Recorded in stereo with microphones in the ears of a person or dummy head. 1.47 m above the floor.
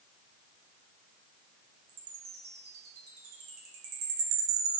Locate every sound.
1.9 s a chime: 55° right (ahead or behind), 1.2 m